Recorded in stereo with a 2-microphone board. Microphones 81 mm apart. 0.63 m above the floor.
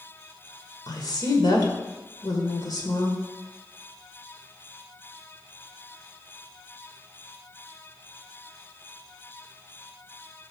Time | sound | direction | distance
0.9 | a woman speaking | 60° left (ahead or behind) | 1.9 m